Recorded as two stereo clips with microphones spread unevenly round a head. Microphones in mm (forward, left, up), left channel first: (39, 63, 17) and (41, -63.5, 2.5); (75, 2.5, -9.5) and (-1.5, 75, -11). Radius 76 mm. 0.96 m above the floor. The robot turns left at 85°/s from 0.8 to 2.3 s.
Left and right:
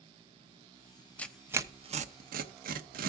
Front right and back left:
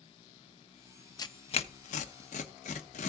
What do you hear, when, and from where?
1.2 s tearing paper: 10° left, 0.8 m; by 3.1 s 80° right, 0.8 m